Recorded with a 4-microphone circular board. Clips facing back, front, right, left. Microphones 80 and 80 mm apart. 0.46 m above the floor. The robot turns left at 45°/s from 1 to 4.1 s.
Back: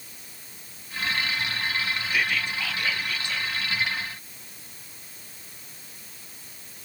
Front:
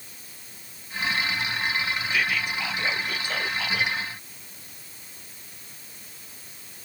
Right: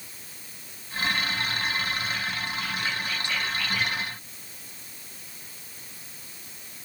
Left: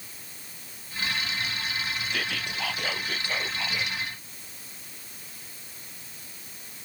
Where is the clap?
No clap in this recording.